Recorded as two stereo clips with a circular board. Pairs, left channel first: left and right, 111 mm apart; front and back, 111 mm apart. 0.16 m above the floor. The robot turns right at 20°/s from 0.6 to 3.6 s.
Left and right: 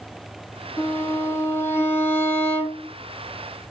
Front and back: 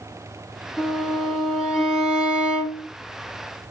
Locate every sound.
0.8 s a violin: 80° left, 1.4 m; by 2.9 s 120° left, 1.4 m